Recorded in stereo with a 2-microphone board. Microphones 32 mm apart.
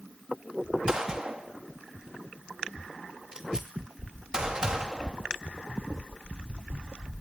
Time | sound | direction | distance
0.9 | a gunshot | 20° right (ahead or behind) | 2.5 m